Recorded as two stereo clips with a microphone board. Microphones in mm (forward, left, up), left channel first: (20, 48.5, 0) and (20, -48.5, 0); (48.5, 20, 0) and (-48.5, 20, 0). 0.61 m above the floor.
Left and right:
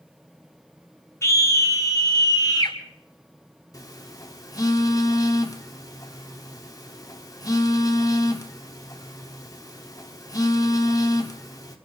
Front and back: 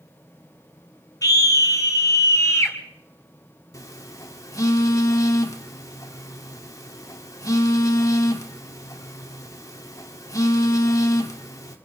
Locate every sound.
1.2 s a scream: 35° left, 1.8 m; by 2.8 s 55° left, 2.5 m
3.7 s a phone buzzing: 45° left, 1.5 m